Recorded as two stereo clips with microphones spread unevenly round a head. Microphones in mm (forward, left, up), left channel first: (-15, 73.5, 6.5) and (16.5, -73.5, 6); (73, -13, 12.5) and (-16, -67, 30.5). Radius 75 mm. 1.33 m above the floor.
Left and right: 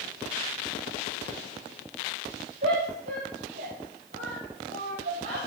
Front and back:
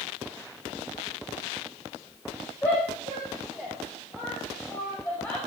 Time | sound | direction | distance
2.6 | a shout | 35° right | 6.5 m